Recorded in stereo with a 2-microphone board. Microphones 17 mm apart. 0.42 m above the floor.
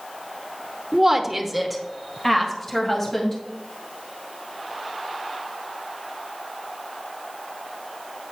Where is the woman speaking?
25° right (ahead or behind), 0.9 m; by 3.4 s 20° left (ahead or behind), 2.5 m.